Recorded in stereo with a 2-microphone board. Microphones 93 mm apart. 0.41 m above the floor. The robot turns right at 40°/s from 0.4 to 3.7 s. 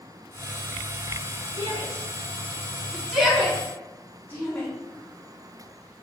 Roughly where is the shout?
Right.